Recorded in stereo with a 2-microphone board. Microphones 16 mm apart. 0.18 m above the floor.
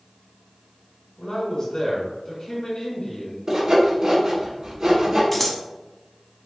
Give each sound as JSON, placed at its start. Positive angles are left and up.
{"t": 1.2, "sound": "a man speaking", "side_deg": 45, "distance_m": 1.8}
{"t": 3.5, "sound": "sawing", "side_deg": -45, "distance_m": 1.4}
{"t": 5.3, "sound": "scissors", "side_deg": 10, "distance_m": 0.7}